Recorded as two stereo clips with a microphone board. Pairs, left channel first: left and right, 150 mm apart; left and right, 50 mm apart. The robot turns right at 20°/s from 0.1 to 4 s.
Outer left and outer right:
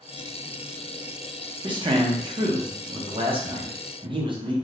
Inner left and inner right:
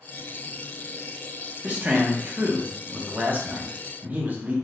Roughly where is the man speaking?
Behind right.